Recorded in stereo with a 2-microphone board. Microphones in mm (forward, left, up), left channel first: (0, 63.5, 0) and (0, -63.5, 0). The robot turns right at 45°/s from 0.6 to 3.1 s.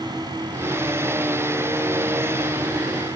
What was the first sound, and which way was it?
Only background noise.